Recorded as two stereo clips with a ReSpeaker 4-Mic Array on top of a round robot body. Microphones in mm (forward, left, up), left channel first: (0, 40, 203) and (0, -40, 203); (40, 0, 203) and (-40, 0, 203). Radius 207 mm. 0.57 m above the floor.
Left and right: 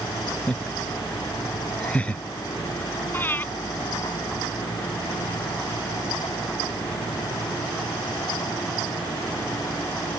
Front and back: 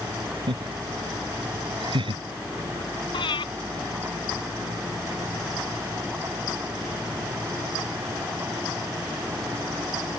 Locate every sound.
0.5 s laughter: 165° left
3.1 s breathing: 20° left